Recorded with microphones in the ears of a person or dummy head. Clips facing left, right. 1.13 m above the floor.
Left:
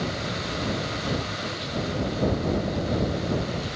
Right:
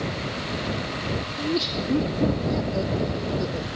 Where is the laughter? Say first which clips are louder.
Right 5 dB; 60° right (ahead or behind); by 3.7 s 75° right (ahead or behind).